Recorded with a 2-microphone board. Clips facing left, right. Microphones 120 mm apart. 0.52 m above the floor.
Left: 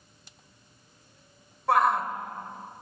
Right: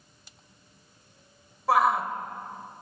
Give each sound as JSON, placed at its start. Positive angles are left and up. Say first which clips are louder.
{"t": 1.7, "sound": "a shout", "louder": "even", "side_deg": 0, "distance_m": 2.5}